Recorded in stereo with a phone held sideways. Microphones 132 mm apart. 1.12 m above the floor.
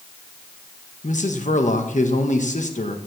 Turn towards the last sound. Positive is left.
turn(degrees=65)  # may be behind; listen again after turning